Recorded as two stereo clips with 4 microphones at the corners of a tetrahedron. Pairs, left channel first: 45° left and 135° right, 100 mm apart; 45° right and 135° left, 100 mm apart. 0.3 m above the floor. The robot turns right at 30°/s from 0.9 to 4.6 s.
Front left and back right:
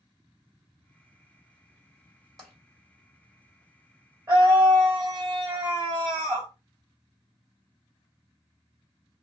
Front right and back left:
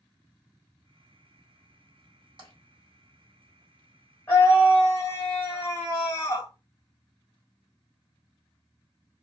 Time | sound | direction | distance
2.4 | tapping | 135° left | 2.0 m
4.3 | a scream | 100° right | 1.6 m